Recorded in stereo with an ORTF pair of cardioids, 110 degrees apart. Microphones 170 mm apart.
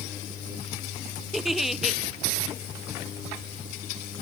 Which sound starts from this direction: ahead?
A giggle, at 1.3 s.